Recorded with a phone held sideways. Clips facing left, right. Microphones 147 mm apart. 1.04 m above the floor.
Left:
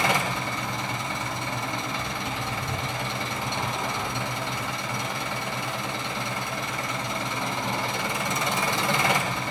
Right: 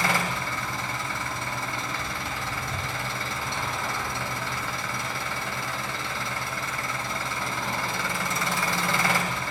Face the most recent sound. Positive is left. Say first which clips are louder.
# left 2 dB
turn(degrees=20)  # may be behind; listen again after turning